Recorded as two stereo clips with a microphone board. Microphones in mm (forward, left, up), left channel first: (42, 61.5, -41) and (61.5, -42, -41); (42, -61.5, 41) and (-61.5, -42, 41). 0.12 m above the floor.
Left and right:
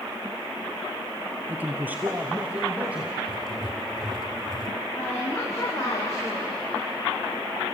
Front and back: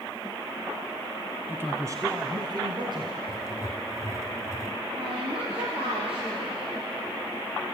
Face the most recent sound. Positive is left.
turn(degrees=150)